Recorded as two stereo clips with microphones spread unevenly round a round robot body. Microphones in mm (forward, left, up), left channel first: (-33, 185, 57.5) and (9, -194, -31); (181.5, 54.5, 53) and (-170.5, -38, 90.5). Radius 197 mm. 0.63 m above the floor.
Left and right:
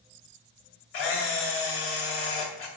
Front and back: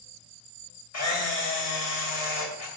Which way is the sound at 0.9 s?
60° left.